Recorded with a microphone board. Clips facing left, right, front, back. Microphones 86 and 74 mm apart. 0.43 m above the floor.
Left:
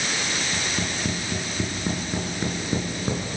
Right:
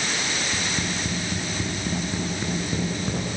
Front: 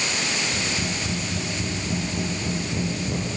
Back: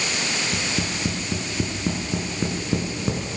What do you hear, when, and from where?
0.5 s tapping: 160° left, 6 m